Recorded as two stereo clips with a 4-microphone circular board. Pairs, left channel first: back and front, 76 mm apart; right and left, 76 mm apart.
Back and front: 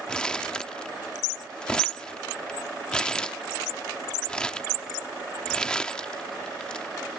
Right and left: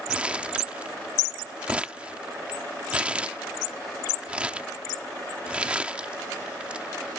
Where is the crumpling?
125° left.